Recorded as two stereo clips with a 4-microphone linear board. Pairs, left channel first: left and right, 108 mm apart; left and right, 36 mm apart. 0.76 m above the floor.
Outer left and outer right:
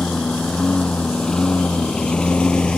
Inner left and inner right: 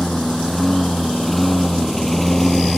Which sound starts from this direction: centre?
A lawn mower, at 0.0 s.